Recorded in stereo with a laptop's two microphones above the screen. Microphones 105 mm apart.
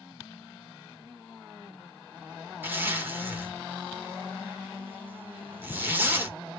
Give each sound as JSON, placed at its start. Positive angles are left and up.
{"t": 2.6, "sound": "a zipper", "side_deg": -20, "distance_m": 1.0}